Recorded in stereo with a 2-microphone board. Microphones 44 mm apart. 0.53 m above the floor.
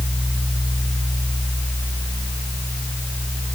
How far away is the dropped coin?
I don't hear a dropped coin.